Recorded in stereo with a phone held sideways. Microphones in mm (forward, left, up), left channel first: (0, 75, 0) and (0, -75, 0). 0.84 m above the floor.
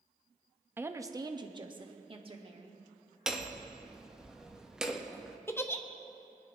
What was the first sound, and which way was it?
A woman speaking, 15° right (ahead or behind).